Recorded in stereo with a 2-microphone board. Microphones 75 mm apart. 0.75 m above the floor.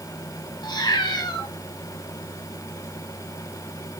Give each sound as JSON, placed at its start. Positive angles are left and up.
{"t": 0.6, "sound": "a cat meowing", "side_deg": 75, "distance_m": 1.8}